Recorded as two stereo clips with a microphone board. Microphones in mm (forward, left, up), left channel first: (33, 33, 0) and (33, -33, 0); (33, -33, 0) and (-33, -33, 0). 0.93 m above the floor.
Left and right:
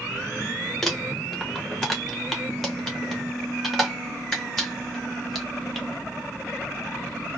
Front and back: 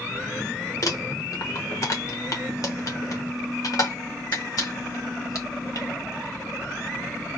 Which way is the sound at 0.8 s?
Straight ahead.